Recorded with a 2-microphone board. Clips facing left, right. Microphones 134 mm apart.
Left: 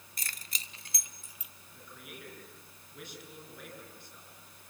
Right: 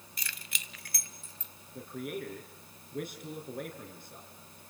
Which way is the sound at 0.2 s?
45° left (ahead or behind).